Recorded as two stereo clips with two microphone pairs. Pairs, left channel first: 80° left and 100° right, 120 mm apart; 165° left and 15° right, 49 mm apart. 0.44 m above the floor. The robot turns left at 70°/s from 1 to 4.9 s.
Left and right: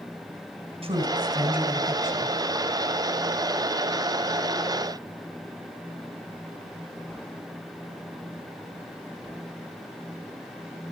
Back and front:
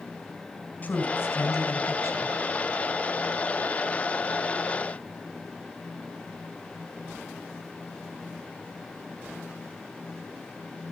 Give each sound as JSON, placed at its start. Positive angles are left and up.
{"t": 0.8, "sound": "a woman speaking", "azimuth_deg": -135, "distance_m": 5.0}